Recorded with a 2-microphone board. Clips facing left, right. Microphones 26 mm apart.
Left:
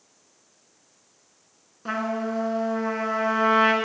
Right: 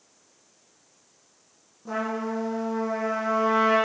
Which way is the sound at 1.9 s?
70° left (ahead or behind).